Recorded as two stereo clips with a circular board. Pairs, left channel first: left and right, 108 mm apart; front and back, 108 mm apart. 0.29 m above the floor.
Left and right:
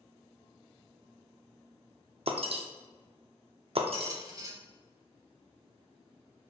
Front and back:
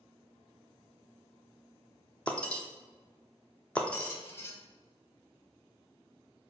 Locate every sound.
2.3 s breaking glass: 80° right, 0.6 m
3.9 s a squeak: 55° right, 0.7 m